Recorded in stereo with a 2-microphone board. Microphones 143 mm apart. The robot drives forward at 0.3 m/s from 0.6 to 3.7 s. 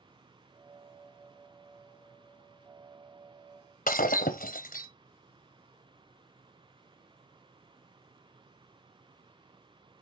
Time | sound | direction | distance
3.9 | breaking glass | 75° left (ahead or behind) | 0.8 m